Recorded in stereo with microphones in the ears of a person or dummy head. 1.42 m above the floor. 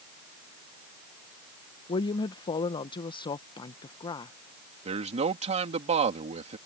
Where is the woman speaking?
30° left (ahead or behind).